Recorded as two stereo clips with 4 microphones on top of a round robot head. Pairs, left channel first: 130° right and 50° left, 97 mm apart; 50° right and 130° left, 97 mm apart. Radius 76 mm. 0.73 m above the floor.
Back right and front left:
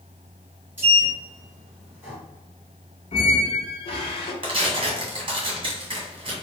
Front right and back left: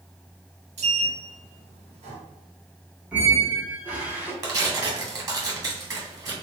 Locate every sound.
0.8 s a sliding door: 125° left, 1.7 m
3.1 s a squeak: 155° right, 1.1 m
4.4 s tearing paper: 80° left, 1.8 m